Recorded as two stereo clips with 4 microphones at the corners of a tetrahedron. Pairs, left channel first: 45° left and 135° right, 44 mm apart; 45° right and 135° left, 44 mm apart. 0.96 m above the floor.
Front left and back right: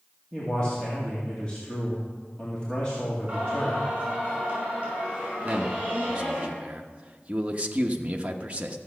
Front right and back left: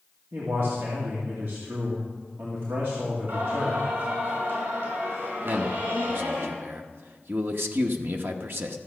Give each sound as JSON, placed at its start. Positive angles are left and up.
{"t": 0.3, "sound": "a man speaking", "azimuth_deg": 115, "distance_m": 2.0}
{"t": 3.3, "sound": "singing", "azimuth_deg": 165, "distance_m": 5.5}
{"t": 5.5, "sound": "a man speaking", "azimuth_deg": 165, "distance_m": 0.9}